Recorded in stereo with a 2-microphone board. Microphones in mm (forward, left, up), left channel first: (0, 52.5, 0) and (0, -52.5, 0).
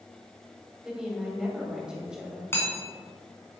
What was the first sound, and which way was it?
A woman speaking, 5° right (ahead or behind).